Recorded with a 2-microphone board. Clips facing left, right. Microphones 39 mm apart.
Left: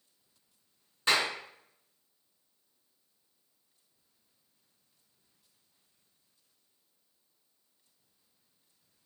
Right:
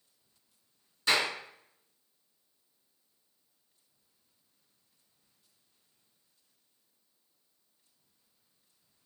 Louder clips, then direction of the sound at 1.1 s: Even; 30° left (ahead or behind).